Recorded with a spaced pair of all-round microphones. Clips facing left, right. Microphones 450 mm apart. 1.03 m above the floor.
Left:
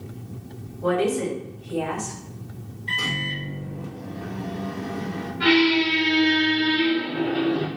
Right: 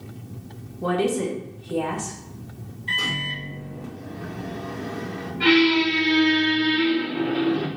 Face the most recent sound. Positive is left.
turn(degrees=-5)  # may be behind; listen again after turning